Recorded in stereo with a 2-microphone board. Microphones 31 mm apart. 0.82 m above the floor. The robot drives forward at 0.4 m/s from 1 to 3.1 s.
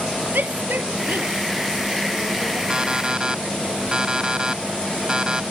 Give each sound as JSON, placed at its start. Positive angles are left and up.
{"t": 0.3, "sound": "a shout", "side_deg": -85}
{"t": 2.7, "sound": "an alarm clock", "side_deg": -30}